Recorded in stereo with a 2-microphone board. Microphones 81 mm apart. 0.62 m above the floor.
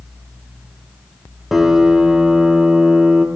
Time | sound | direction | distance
1.5 | a piano | 5° right (ahead or behind) | 0.8 m